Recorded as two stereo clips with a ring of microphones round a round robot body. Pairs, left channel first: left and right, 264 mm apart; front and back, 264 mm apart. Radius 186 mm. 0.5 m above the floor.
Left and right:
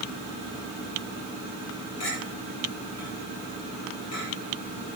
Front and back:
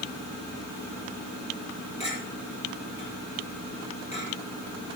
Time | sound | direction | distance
2.0 | a clink | 65° left | 9.5 m